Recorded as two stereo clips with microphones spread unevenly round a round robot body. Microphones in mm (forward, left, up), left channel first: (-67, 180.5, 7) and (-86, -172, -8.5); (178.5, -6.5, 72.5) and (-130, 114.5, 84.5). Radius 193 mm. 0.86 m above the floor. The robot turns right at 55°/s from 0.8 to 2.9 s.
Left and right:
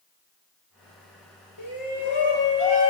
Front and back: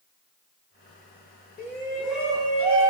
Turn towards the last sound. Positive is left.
turn(degrees=115)